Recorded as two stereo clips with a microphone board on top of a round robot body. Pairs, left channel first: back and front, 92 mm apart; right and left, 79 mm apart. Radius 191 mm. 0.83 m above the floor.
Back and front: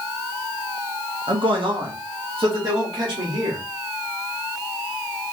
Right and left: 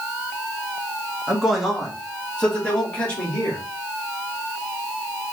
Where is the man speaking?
10° left, 1.4 m; by 3.6 s 20° right, 3 m.